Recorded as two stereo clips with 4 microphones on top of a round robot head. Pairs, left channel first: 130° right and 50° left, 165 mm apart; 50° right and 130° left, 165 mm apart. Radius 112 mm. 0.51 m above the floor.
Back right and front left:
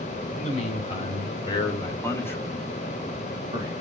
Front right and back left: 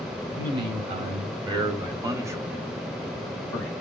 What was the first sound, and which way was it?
A man speaking, 175° right.